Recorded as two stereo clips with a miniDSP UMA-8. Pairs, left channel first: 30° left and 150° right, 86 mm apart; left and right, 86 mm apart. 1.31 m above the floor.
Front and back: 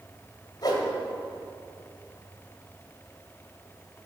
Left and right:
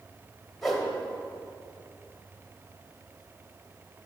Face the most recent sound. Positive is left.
turn(degrees=5)